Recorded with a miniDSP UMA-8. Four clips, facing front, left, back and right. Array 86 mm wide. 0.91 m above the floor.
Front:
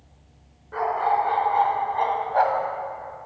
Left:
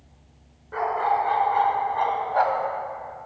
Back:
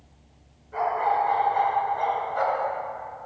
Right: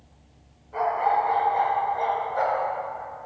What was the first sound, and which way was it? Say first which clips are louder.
A dog barking: even, front 1 dB; 45° left.